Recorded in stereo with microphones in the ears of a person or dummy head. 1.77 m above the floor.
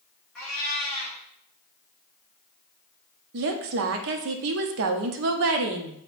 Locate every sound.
0.3 s a cat meowing: 5° left (ahead or behind), 1.4 m
3.3 s a woman speaking: 60° right (ahead or behind), 0.5 m